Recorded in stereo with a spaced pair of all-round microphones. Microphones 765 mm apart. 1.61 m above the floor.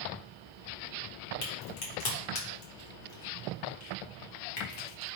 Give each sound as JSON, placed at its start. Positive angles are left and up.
{"t": 1.4, "sound": "a crack", "side_deg": 75, "distance_m": 1.0}